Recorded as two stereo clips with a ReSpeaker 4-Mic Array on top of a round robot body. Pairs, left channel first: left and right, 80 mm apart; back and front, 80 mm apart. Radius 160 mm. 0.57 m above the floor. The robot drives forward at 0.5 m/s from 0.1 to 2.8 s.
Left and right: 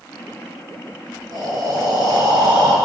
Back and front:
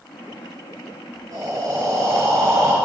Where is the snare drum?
No snare drum in this recording.